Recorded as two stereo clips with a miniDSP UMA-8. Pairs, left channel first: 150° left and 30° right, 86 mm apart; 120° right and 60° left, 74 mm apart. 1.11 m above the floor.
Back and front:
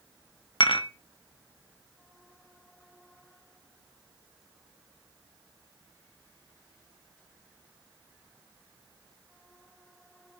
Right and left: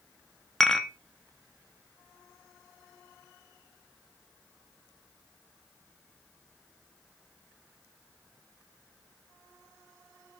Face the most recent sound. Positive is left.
turn(degrees=155)